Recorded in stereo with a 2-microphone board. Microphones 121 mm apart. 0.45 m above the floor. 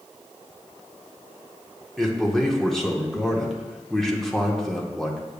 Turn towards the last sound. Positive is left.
turn(degrees=0)  # may be behind; listen again after turning